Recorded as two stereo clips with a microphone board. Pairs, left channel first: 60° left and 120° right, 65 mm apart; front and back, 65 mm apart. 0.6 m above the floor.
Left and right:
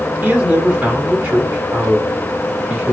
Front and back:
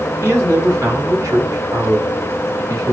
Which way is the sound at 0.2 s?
175° right.